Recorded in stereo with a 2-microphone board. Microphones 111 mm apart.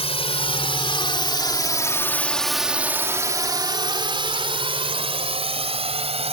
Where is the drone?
65° left (ahead or behind); by 6.3 s 70° right (ahead or behind).